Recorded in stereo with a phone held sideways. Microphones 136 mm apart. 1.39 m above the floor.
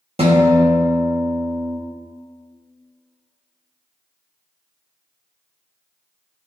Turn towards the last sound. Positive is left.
turn(degrees=-50)  # may be behind; listen again after turning